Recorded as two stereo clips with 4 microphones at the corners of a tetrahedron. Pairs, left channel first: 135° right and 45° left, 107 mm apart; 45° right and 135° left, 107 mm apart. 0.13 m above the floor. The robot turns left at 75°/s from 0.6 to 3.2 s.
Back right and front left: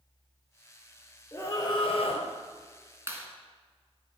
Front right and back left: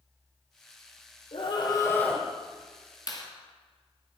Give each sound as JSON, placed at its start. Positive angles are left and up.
{"t": 1.3, "sound": "a scream", "azimuth_deg": -65, "distance_m": 3.0}
{"t": 3.1, "sound": "a clap", "azimuth_deg": -10, "distance_m": 1.9}